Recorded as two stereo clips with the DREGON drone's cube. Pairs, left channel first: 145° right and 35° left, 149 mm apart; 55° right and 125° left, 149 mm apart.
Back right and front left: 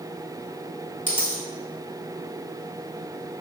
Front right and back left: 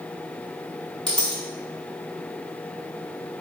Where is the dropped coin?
140° right, 0.8 m.